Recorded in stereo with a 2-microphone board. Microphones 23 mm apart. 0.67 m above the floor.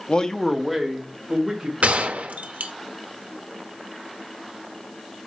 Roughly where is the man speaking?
Left.